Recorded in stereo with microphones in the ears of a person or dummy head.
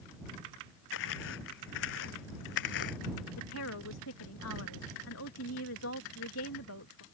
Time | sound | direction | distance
0.9 | footsteps | 75° left (ahead or behind) | ?
3.4 | a woman speaking | 80° left | ?